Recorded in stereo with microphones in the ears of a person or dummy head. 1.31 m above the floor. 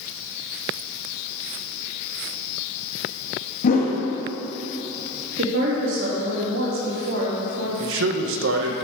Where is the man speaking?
70° right (ahead or behind), 0.9 m.